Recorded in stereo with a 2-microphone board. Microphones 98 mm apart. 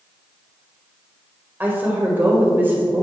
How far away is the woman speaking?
About 1.4 m.